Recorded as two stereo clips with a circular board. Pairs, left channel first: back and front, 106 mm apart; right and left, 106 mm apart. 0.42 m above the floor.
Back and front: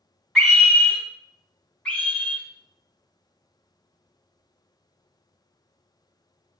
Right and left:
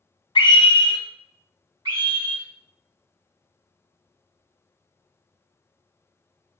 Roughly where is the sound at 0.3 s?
Right.